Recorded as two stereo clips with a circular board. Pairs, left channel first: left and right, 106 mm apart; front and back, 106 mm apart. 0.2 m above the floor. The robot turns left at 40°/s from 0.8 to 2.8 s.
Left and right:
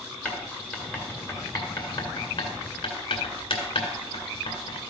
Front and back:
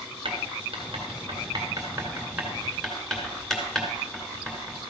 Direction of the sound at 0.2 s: 165° left.